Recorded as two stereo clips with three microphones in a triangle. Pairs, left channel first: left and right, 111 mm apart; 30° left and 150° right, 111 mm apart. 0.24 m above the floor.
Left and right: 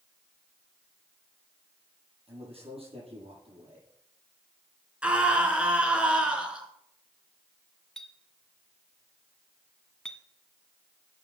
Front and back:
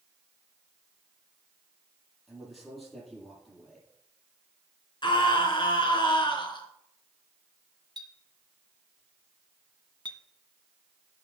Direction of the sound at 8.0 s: 175° left.